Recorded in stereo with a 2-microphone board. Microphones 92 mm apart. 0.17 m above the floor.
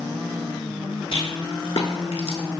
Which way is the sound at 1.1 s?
65° left (ahead or behind).